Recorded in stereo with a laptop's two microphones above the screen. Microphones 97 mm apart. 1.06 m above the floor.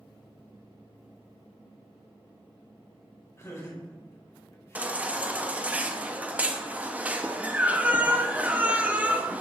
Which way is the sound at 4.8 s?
15° right (ahead or behind).